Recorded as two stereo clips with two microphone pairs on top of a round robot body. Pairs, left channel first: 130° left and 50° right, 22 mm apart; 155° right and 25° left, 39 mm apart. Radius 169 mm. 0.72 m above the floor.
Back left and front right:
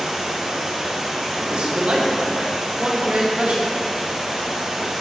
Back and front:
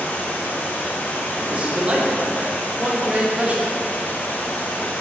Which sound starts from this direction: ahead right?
A man speaking, at 1.4 s.